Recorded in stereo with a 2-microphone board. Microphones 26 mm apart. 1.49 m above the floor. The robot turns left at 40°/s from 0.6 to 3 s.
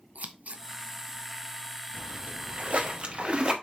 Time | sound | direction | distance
0.1 | scissors | 70° right (ahead or behind) | 0.8 m
1.9 | a splash | 90° right | 1.2 m